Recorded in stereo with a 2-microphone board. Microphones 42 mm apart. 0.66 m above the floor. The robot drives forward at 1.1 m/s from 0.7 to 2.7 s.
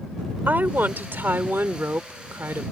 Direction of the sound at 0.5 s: 50° right (ahead or behind).